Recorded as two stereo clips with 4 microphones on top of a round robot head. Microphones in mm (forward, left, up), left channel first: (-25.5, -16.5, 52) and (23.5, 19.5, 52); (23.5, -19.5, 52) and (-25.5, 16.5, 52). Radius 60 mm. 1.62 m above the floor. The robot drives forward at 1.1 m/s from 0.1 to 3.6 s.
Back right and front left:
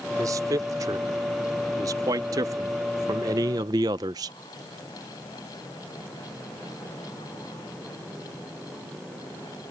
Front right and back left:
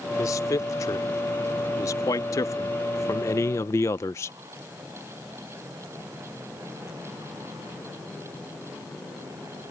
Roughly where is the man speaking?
Ahead.